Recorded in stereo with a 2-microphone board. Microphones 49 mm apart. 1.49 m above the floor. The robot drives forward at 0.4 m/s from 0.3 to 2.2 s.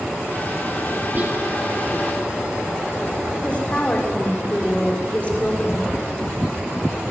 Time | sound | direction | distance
1.1 | whispering | 40° right (ahead or behind) | 1.6 m
3.4 | a woman speaking | 25° left (ahead or behind) | 5.5 m